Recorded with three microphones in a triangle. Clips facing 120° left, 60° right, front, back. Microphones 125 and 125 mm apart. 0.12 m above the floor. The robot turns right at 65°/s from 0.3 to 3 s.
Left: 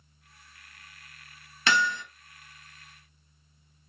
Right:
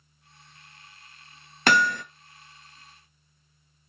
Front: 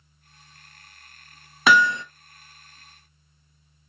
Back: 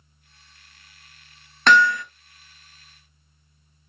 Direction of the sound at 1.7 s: 80° right.